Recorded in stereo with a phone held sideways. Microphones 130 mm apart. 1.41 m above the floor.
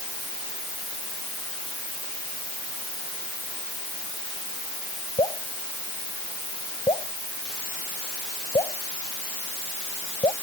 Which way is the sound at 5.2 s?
45° left (ahead or behind).